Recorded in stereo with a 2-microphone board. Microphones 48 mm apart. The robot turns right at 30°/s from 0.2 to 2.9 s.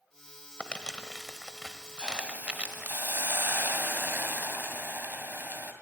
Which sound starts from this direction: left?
Crumpling, at 0.6 s.